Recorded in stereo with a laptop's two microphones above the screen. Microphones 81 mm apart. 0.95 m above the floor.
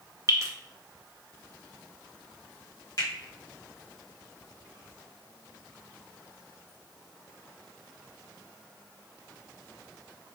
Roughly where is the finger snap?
Left.